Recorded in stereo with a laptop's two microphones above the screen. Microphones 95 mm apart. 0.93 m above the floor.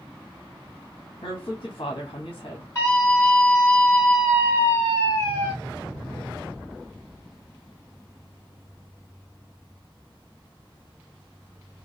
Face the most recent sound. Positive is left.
turn(degrees=35)  # may be behind; listen again after turning